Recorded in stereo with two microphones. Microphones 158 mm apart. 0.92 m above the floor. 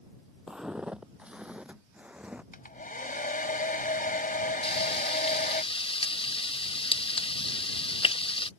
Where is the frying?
35° left (ahead or behind).